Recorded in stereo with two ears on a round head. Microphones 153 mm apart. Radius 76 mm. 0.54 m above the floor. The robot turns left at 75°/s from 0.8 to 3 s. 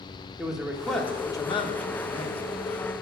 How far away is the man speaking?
About 1.2 m.